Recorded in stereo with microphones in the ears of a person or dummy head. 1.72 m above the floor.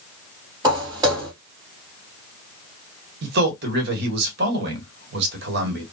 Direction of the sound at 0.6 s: 15° right (ahead or behind).